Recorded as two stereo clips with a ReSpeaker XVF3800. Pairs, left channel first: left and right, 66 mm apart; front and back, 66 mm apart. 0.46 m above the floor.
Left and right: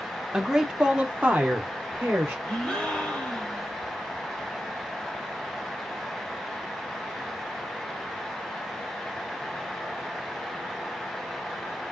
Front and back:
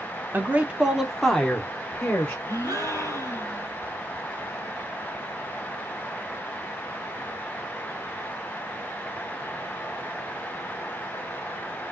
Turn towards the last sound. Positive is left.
turn(degrees=10)